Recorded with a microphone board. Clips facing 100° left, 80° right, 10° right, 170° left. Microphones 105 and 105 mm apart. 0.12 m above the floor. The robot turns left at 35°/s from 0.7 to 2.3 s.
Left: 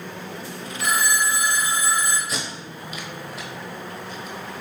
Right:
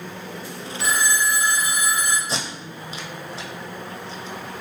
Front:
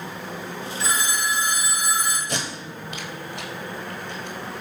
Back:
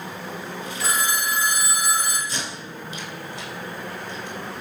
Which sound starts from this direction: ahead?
Tape being pulled, at 2.3 s.